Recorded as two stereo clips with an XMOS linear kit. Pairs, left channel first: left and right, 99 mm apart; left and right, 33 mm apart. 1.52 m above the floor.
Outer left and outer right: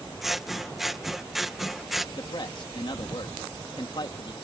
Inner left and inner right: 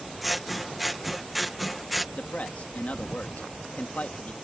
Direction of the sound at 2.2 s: 50° left (ahead or behind).